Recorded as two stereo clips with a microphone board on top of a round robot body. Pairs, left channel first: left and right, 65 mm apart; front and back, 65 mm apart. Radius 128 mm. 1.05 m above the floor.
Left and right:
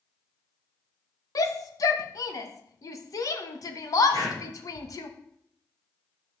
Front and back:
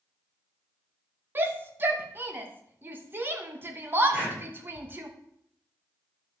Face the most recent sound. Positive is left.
turn(degrees=110)